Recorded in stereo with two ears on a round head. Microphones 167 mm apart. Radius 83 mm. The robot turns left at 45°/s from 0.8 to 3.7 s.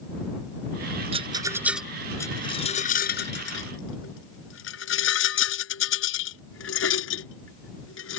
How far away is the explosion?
I don't hear an explosion.